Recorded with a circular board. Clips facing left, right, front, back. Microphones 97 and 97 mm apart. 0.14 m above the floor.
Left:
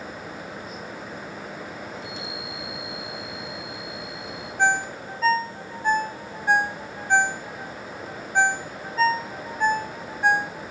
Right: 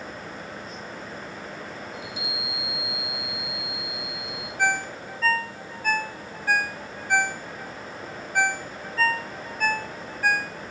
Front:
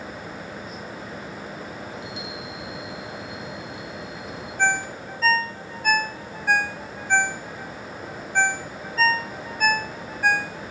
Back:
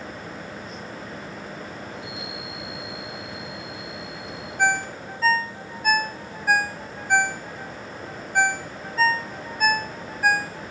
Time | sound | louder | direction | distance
1.9 | a chime | left 1 dB, front 1 dB | 10° right | 6 m
4.6 | a ringtone | left 3 dB, back 1 dB | 105° left | 0.5 m